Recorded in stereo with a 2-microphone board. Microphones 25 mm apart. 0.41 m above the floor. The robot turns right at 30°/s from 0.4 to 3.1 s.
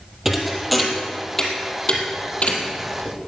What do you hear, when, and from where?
0.2 s a thud: 10° right (ahead or behind), 2.5 m; by 3.1 s 70° left (ahead or behind), 2.5 m